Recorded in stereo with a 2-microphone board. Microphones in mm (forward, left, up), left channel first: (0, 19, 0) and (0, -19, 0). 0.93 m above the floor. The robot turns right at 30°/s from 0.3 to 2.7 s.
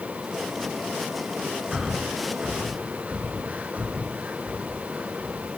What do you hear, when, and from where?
1.7 s breathing: 5° right (ahead or behind), 6.5 m; by 5.5 s 35° right (ahead or behind), 6.5 m